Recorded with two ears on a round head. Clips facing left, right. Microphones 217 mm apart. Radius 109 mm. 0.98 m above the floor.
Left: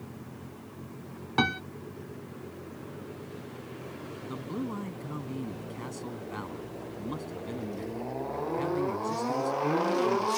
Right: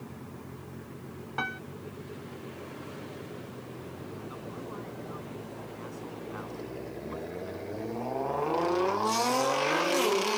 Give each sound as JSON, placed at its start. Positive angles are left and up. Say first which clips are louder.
{"t": 1.4, "sound": "a piano", "louder": "left 11 dB", "side_deg": 60}
{"t": 4.2, "sound": "a man speaking", "louder": "left 6 dB", "side_deg": 60}